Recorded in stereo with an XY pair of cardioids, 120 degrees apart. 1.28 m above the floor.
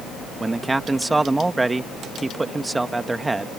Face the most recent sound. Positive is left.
turn(degrees=-15)